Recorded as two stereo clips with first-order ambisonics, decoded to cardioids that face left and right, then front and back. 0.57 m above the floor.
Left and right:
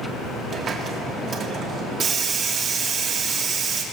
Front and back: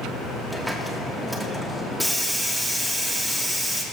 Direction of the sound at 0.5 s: 95° right.